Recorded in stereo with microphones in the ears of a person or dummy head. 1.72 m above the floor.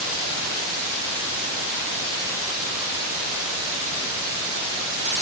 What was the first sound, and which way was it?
Only background noise.